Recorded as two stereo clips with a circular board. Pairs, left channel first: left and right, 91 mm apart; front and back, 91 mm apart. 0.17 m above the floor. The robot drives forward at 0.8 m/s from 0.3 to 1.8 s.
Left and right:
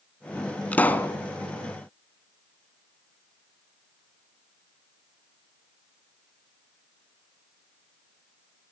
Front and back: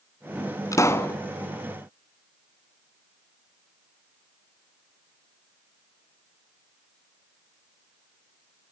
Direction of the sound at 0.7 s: 25° left.